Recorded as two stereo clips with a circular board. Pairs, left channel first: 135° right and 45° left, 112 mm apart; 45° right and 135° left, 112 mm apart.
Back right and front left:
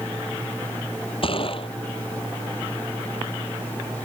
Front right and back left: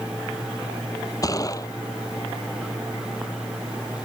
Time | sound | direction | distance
1.2 | a gunshot | 100° right | ?